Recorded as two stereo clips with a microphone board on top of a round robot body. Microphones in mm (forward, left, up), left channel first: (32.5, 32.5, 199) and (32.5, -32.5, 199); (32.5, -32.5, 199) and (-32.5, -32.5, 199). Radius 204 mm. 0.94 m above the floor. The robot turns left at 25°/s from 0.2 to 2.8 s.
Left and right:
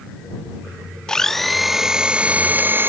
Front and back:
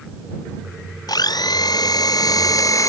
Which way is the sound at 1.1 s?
10° left.